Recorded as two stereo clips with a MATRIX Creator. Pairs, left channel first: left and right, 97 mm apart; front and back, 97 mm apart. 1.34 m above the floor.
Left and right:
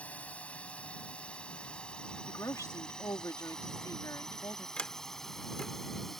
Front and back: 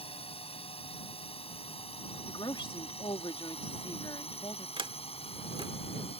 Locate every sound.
0.0 s a drone: 15° left; by 6.2 s straight ahead
2.3 s a woman speaking: 35° left
4.8 s a sliding door: 170° left